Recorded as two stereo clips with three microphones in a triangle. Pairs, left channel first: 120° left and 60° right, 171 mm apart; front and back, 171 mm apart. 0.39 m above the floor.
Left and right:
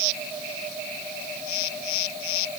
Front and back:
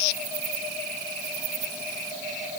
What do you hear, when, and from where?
Only background noise.